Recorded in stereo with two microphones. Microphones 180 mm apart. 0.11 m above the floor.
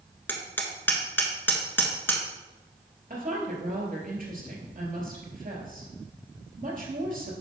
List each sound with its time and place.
0.3 s hammering: 10° left (ahead or behind), 1.3 m
3.1 s a woman speaking: 50° right (ahead or behind), 2.5 m